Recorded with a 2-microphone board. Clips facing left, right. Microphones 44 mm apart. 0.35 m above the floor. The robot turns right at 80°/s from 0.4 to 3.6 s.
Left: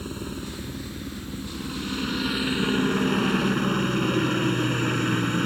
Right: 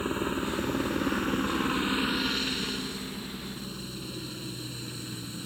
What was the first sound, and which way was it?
A helicopter, 145° right.